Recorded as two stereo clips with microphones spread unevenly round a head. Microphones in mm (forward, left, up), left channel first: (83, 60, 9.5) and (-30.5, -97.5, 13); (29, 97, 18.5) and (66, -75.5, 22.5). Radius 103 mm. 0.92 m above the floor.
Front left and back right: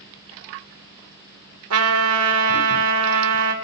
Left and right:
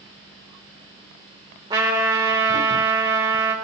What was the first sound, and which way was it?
A trumpet, 150° right.